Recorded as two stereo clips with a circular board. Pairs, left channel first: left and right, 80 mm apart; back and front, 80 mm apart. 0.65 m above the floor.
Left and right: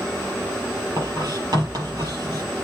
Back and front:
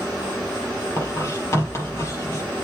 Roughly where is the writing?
Behind right.